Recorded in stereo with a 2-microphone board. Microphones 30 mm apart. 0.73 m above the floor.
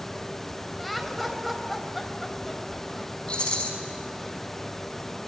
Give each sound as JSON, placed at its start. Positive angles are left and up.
{"t": 0.8, "sound": "laughter", "side_deg": 0, "distance_m": 4.0}
{"t": 3.3, "sound": "a rattle", "side_deg": 35, "distance_m": 5.0}